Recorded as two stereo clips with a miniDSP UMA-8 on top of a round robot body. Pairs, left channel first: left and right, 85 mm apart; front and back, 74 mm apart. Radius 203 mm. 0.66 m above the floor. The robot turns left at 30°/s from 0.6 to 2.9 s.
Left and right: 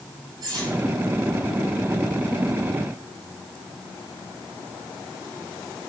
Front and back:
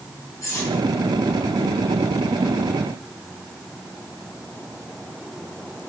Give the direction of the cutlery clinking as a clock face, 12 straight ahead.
2 o'clock.